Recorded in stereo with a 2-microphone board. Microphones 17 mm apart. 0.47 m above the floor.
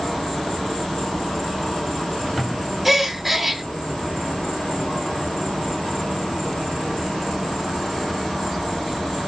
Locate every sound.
0.0 s an insect: 50° left (ahead or behind), 3 m
2.9 s a gasp: 5° right (ahead or behind), 0.8 m